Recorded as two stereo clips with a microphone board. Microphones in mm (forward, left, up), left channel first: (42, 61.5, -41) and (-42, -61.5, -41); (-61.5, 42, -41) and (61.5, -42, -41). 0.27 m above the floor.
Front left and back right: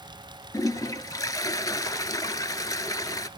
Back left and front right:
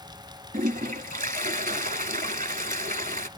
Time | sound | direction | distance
0.5 | a toilet flushing | 10° right | 0.5 m